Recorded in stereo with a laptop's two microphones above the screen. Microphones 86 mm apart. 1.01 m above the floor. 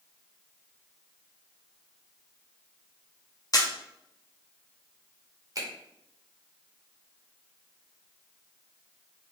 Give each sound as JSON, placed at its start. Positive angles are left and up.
{"t": 3.5, "sound": "a camera shutter", "side_deg": 45, "distance_m": 0.6}
{"t": 5.5, "sound": "a finger snap", "side_deg": -45, "distance_m": 0.9}